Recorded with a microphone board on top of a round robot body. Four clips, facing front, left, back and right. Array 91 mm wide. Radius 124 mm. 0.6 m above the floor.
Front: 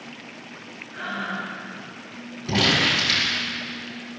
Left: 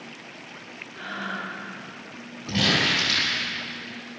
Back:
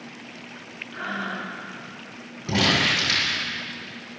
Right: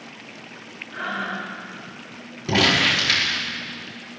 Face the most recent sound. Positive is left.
turn(degrees=-100)